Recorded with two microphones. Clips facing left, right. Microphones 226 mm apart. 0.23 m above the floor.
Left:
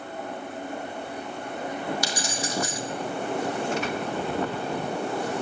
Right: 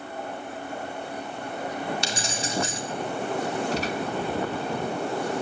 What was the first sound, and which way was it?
Keys jangling, 25° right (ahead or behind).